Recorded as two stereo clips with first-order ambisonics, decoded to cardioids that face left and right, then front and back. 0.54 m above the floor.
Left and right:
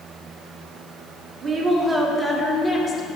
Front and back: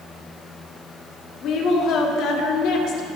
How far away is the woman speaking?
About 1.4 m.